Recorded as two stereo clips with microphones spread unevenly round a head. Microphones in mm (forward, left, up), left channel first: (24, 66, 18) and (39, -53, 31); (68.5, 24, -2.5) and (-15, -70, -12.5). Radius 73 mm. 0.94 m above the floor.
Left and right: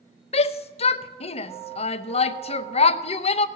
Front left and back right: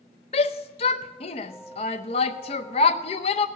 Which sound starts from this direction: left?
A shout, at 0.3 s.